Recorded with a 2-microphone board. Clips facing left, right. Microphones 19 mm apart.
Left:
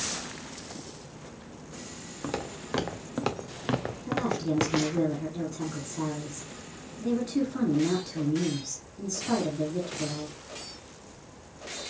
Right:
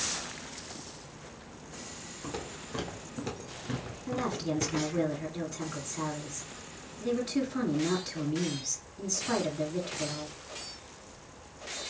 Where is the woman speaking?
10° right (ahead or behind), 1.7 m.